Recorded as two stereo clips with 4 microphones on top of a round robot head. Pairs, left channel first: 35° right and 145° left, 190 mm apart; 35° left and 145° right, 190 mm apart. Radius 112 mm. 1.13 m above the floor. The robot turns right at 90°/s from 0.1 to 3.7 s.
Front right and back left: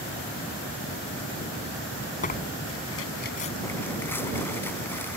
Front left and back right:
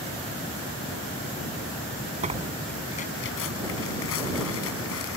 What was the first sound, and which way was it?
Tearing paper, 90° right.